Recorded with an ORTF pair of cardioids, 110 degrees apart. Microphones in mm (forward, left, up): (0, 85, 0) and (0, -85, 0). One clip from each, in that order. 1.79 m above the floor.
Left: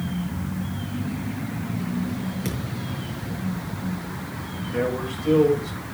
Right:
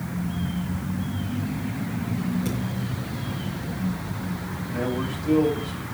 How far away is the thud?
About 6 m.